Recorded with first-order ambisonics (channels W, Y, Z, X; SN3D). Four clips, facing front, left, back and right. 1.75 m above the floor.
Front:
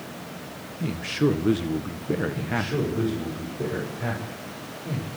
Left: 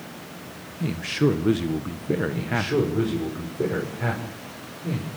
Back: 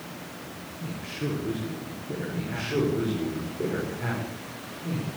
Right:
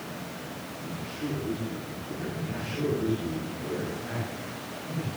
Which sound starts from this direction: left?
A man speaking, at 2.3 s.